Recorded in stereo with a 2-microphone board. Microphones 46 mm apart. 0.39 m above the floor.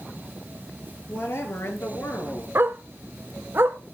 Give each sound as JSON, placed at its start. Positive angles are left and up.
{"t": 1.1, "sound": "a woman speaking", "side_deg": 50, "distance_m": 6.5}
{"t": 2.5, "sound": "a dog barking", "side_deg": -55, "distance_m": 1.0}